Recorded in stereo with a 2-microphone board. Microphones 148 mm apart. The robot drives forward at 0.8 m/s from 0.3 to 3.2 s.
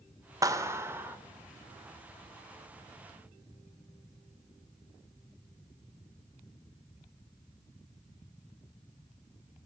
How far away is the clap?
About 0.9 m.